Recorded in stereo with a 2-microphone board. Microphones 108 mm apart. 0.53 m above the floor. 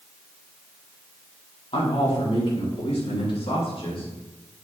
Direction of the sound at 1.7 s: 70° left (ahead or behind).